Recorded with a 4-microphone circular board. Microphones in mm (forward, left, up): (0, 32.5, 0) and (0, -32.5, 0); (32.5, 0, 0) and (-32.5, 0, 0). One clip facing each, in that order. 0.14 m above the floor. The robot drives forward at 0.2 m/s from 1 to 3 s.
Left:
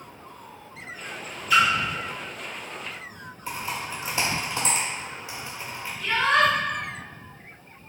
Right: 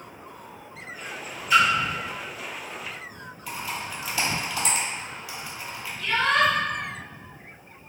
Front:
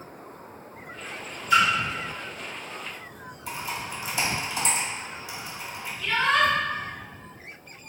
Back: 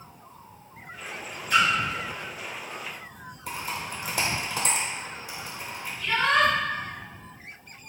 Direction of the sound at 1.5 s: 155° right.